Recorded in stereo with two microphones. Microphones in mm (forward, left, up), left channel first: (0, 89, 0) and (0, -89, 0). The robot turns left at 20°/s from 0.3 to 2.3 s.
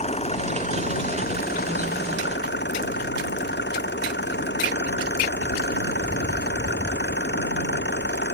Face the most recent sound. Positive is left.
turn(degrees=105)